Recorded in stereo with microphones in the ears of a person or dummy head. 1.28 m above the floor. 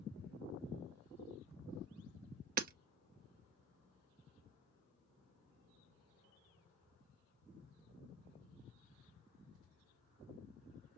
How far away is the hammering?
About 0.8 m.